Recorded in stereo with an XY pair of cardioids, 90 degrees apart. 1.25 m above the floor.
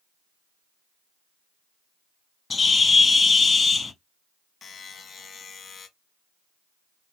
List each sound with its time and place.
2.5 s a bird: 40° left, 0.9 m
4.6 s a buzzer: 55° left, 1.2 m